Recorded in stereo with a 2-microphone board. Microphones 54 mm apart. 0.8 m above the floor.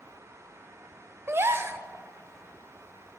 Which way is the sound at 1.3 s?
55° right (ahead or behind).